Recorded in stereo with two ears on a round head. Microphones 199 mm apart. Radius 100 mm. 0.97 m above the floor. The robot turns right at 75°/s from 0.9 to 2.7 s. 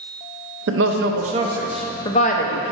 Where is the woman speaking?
55° right (ahead or behind), 0.6 m; by 2.7 s 60° left (ahead or behind), 0.6 m.